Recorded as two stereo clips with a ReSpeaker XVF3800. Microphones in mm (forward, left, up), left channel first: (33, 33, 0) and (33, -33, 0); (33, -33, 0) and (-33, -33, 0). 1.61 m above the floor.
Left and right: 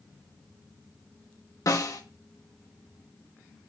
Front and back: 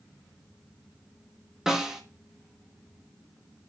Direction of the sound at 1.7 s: 100° left.